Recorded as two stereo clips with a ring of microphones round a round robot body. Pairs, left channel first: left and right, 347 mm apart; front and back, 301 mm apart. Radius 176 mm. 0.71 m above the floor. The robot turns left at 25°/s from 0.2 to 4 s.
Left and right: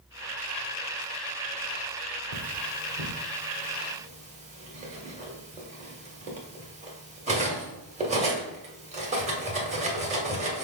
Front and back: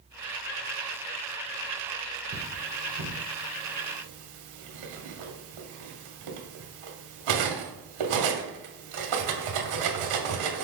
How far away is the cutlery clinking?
About 0.9 m.